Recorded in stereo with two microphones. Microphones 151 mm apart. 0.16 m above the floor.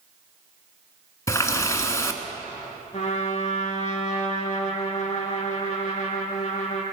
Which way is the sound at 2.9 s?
45° left (ahead or behind).